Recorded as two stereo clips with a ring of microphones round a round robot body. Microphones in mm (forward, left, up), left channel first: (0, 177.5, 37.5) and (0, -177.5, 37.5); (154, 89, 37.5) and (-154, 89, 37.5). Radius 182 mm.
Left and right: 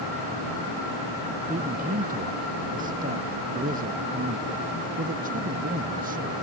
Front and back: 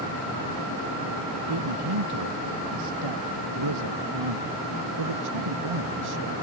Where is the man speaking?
160° right.